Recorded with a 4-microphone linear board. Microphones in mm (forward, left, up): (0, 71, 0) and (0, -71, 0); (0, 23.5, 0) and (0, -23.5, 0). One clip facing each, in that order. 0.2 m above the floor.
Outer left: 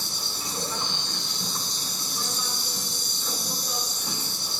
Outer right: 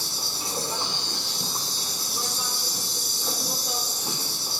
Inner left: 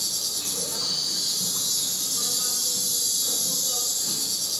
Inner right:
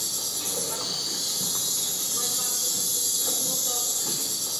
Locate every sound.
0.0 s an insect: 35° right (ahead or behind), 2 m